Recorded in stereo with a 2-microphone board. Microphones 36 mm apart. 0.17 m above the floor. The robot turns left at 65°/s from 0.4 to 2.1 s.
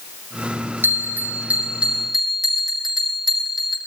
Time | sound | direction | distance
0.8 | a bell | 85° right | 4.5 m